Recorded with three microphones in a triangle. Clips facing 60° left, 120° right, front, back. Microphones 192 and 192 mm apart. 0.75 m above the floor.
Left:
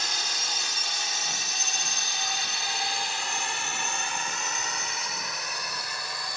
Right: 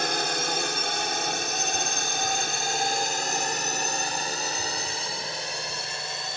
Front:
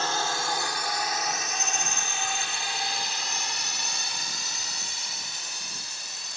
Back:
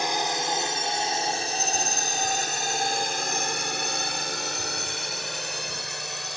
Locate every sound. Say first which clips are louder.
0.0 s a drone: right 11 dB, back 2 dB; 110° right; by 6.4 s 175° left